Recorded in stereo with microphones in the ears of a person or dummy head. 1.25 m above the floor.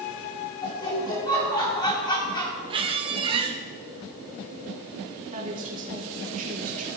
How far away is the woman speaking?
About 1.5 m.